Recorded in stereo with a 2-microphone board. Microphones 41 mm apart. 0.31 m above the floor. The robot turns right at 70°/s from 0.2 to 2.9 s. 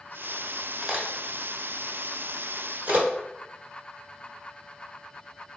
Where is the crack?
5° left (ahead or behind), 1.2 m; by 3.0 s 40° right (ahead or behind), 1.2 m.